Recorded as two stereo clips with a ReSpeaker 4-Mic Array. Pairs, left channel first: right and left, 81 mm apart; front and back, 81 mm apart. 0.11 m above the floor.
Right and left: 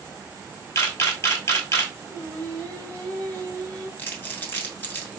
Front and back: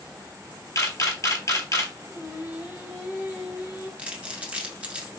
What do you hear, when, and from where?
0.8 s a camera shutter: 40° right, 0.8 m
2.1 s singing: 130° right, 1.4 m
4.0 s crumpling: 120° right, 0.9 m